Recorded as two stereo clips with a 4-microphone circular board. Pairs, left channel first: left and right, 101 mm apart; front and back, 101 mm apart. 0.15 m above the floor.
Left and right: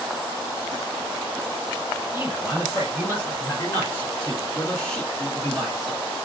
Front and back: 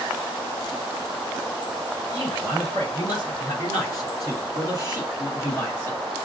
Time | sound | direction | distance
2.1 | a man speaking | 40° left | 3 m